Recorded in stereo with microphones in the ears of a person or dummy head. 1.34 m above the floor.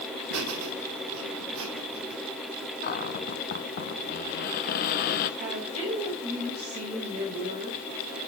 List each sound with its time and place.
0.3 s laughter: 85° right, 3 m; by 2.2 s 80° right, 4 m
2.8 s a cupboard door: 45° left (ahead or behind), 1.0 m
5.4 s a woman speaking: 45° right (ahead or behind), 5 m